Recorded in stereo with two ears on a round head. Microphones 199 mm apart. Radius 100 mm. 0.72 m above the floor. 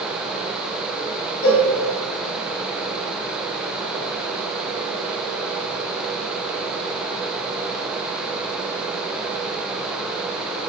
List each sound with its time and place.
1.4 s a cowbell: 60° left (ahead or behind), 0.9 m